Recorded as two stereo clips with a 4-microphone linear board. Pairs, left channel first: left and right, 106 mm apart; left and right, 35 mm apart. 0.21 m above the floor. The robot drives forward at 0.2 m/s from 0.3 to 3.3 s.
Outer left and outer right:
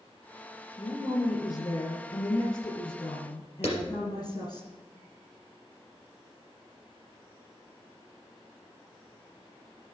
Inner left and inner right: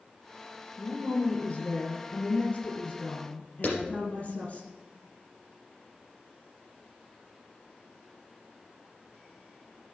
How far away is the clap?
About 4 m.